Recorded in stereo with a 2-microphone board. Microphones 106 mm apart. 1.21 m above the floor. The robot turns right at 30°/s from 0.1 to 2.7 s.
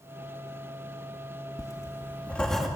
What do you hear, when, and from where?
1.6 s writing: 30° left (ahead or behind), 2.5 m; by 2.7 s centre (ahead or behind), 2.5 m